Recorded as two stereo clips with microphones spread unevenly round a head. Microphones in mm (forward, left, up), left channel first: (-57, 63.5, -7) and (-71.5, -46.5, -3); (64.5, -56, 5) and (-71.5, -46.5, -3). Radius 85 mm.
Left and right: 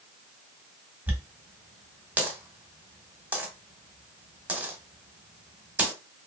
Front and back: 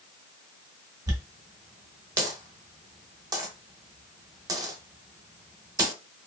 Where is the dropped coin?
150° right, 0.9 m.